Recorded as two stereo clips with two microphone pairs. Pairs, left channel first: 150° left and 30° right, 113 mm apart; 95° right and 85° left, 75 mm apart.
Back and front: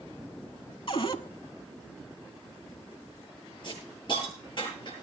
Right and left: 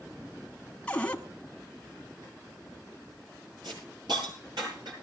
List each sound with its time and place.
0.9 s a cupboard door: 170° right, 1.0 m
3.6 s a hiss: 105° left, 9.5 m